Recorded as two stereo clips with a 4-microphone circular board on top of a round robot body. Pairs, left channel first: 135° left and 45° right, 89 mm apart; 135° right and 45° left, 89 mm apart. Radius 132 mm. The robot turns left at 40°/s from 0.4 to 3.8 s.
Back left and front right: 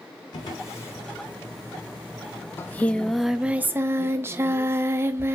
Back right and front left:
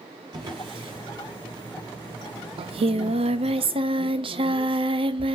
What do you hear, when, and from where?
0.3 s a drawer: 90° left, 4 m; by 1.1 s 65° left, 4 m
2.6 s singing: 70° left, 0.5 m; by 5.3 s 20° left, 0.5 m